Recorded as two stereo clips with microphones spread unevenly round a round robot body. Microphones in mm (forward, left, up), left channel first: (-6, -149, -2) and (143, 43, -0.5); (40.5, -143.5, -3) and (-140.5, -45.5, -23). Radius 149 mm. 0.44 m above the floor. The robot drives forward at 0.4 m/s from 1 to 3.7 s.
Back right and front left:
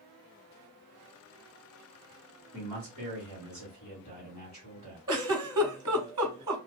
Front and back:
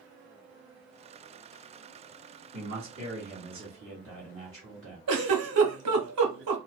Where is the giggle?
130° left, 0.8 m.